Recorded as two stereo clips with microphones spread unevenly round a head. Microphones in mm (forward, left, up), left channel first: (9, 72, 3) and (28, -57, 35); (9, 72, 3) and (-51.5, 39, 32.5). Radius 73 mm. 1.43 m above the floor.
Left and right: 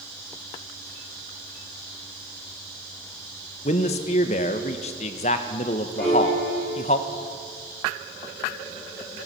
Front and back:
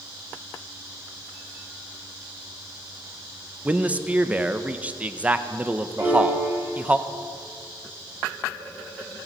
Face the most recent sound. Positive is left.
turn(degrees=180)